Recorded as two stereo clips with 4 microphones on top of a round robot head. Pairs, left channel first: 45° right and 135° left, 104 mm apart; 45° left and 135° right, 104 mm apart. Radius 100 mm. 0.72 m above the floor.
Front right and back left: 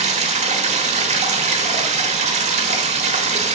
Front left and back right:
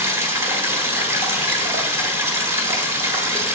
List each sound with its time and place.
0.0 s running water: 155° left, 1.3 m